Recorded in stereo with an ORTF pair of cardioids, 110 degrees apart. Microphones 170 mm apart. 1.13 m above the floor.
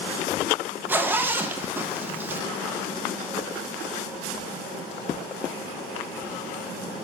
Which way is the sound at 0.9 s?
10° right.